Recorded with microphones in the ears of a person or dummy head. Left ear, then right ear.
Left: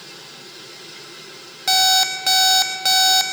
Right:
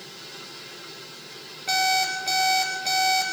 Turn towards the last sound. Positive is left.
turn(degrees=45)  # may be behind; listen again after turning